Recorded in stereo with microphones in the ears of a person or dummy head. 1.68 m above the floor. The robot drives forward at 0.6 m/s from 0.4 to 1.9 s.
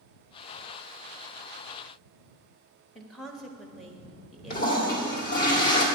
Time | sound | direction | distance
3.0 | a woman speaking | centre (ahead or behind) | 0.8 m
4.5 | a toilet flushing | 50° left (ahead or behind) | 1.4 m